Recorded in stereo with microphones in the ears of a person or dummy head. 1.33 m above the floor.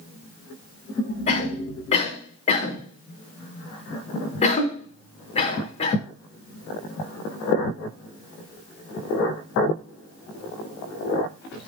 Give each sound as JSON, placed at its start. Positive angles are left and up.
{"t": 1.3, "sound": "a cough", "side_deg": 35, "distance_m": 3.5}